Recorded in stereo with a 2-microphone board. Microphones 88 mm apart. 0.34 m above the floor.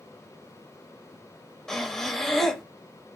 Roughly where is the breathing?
Centre.